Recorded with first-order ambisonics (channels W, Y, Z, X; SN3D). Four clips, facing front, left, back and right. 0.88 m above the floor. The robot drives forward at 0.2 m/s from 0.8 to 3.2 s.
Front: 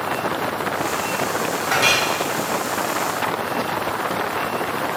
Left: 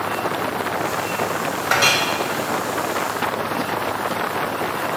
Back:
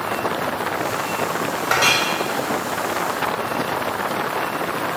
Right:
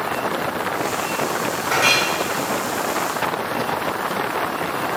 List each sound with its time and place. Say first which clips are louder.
1.7 s a clink: even, back 1 dB; 135° left, 1.1 m